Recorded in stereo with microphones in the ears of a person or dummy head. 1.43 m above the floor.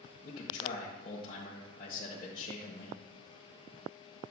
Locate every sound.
0.2 s a man speaking: 30° left (ahead or behind), 1.2 m